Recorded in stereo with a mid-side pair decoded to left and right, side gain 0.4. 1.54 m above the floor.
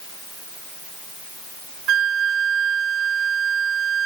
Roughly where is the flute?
Right.